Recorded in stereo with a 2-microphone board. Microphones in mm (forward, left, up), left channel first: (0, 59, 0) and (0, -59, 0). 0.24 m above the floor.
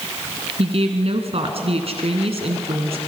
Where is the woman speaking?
60° right (ahead or behind), 2 m.